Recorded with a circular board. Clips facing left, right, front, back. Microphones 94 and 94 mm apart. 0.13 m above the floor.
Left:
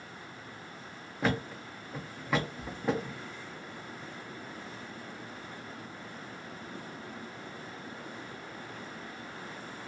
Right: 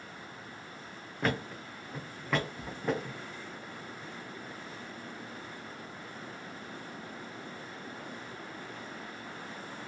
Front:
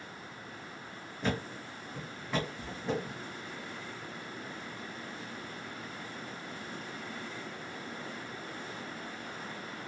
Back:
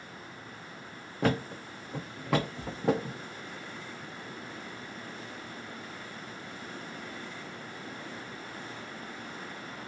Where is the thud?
175° left, 0.7 m.